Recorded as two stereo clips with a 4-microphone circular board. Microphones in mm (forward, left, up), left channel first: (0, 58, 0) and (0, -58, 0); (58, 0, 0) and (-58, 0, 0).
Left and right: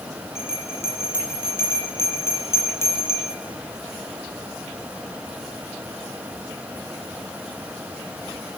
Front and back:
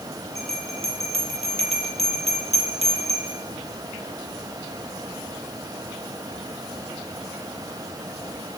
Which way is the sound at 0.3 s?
155° left.